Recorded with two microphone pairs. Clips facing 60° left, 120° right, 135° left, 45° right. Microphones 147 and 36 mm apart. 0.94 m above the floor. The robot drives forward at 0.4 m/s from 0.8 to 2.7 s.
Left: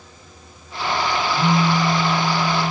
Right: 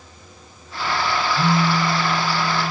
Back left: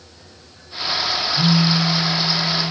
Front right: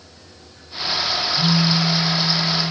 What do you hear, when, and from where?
1.4 s a phone buzzing: 165° left, 0.5 m; by 2.7 s 170° left, 1.1 m